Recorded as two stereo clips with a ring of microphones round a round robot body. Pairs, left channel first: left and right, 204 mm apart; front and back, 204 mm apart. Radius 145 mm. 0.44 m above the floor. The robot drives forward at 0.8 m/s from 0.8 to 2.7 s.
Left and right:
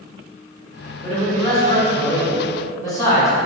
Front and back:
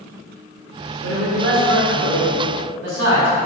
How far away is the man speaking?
About 2.5 m.